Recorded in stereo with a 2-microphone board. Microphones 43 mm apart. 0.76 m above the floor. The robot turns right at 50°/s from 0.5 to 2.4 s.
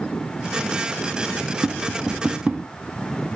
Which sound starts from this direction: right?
Tapping, at 1.6 s.